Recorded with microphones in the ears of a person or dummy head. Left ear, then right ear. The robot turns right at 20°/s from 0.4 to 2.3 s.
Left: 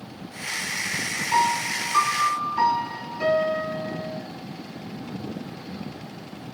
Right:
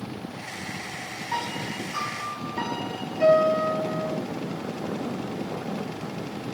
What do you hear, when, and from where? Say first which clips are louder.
1.3 s a piano: left 9 dB; 10° right (ahead or behind), 1.5 m; by 4.2 s 10° left (ahead or behind), 1.5 m